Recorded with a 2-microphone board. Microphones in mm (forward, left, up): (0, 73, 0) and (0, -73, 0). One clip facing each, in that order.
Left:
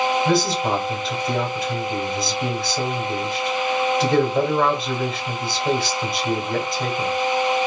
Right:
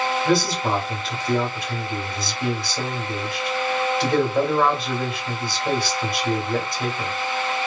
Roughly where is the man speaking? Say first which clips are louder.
Left 1 dB; centre.